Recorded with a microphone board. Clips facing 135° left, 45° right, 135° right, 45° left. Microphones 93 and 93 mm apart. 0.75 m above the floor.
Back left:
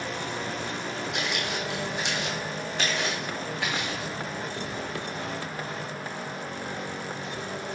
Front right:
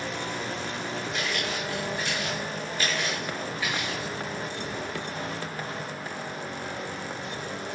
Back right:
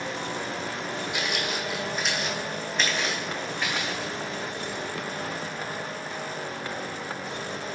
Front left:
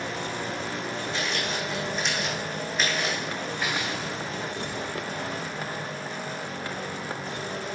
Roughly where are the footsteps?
Behind left.